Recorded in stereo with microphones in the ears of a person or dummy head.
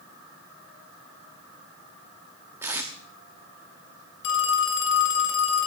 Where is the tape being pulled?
15° right (ahead or behind), 0.9 m.